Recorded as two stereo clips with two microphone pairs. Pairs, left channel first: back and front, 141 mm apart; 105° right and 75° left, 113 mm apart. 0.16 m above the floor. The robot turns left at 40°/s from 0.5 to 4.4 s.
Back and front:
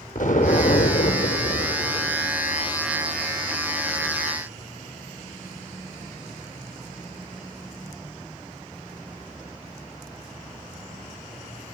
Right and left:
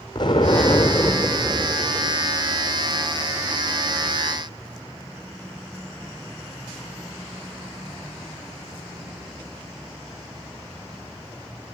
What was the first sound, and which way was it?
An explosion, 160° right.